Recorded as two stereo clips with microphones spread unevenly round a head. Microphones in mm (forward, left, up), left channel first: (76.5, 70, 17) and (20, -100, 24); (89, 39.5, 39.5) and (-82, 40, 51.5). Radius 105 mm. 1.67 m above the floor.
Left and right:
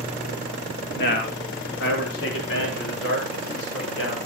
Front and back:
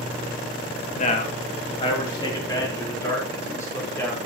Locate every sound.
0.9 s a man speaking: 45° left, 2.5 m; by 4.2 s 75° left, 6 m